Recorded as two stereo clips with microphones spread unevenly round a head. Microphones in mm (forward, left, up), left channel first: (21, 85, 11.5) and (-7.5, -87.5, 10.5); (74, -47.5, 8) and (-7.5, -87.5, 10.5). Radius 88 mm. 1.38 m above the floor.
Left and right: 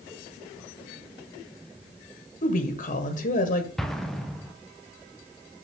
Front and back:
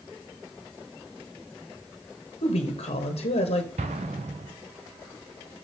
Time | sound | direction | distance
2.4 | a woman speaking | 30° left | 1.1 m
3.8 | an explosion | 170° left | 0.7 m